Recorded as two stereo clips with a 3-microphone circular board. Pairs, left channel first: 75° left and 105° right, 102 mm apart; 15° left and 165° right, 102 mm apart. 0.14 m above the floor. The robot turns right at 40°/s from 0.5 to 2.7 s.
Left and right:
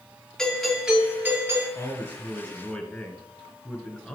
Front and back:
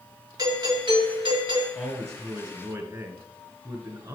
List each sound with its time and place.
0.4 s a doorbell: 160° left, 4 m; by 1.6 s 155° right, 4 m
1.8 s a man speaking: 125° left, 2.5 m; by 4.2 s 160° left, 2.5 m